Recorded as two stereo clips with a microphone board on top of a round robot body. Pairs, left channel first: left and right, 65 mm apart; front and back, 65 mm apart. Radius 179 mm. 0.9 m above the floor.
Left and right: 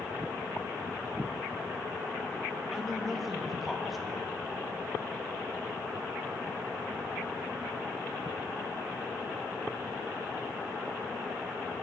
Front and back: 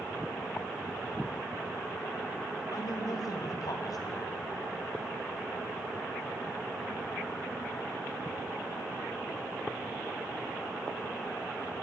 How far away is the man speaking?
About 2.0 m.